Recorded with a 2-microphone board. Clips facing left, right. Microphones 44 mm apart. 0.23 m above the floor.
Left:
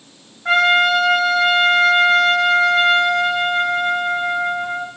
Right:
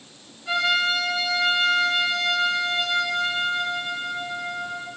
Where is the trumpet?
70° left (ahead or behind), 3 m.